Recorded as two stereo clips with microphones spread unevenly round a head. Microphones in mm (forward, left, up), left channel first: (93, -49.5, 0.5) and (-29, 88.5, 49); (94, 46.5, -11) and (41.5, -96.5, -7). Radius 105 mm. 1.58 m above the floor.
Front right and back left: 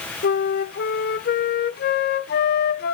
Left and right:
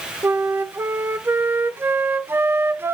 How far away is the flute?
About 0.5 m.